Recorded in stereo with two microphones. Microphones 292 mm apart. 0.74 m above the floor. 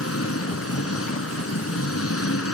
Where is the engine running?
50° left (ahead or behind).